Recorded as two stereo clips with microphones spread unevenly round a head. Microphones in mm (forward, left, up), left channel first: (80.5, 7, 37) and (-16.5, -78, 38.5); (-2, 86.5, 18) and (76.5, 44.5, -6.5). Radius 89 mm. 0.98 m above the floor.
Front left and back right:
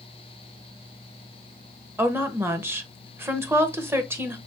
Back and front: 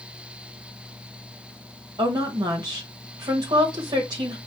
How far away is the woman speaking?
About 1.1 m.